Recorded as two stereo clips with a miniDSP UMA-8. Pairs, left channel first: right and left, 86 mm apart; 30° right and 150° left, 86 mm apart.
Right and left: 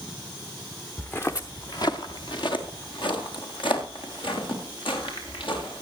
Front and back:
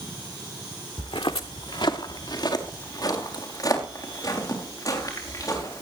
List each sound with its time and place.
1.0 s footsteps: 15° right, 0.8 m; by 5.8 s 80° right, 6 m